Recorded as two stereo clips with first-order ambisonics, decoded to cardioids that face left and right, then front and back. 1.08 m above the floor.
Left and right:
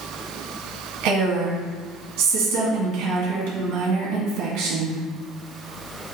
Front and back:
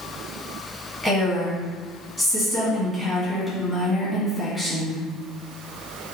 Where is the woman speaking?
95° right, 1.5 m.